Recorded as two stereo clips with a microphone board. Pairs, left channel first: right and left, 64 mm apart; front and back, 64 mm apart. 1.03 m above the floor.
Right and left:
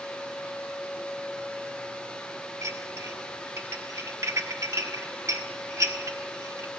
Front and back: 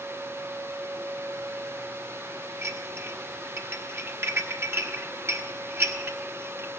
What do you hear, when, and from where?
2.6 s dishes clattering: 130° left, 1.2 m